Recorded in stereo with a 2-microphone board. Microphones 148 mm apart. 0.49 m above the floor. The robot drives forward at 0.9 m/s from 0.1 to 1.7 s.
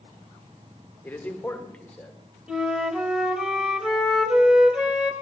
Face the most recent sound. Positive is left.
turn(degrees=-5)  # may be behind; listen again after turning